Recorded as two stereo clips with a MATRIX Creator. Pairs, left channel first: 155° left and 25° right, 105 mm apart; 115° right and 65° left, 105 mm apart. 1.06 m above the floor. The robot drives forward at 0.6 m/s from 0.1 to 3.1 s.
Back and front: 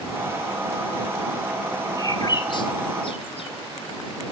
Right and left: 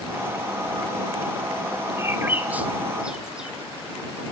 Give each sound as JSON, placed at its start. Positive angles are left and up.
{"t": 2.0, "sound": "a bird", "azimuth_deg": 120, "distance_m": 1.1}